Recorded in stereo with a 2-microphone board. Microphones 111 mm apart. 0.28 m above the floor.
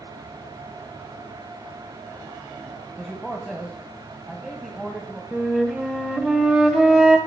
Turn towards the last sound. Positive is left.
turn(degrees=-5)  # may be behind; listen again after turning